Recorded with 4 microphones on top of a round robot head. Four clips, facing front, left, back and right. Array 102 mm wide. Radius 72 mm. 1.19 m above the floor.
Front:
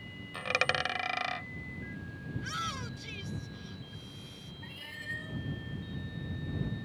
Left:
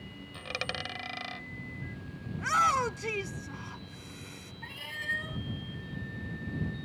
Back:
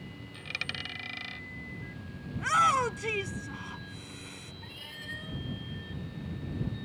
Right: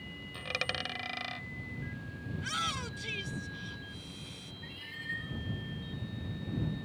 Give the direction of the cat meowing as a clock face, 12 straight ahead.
9 o'clock.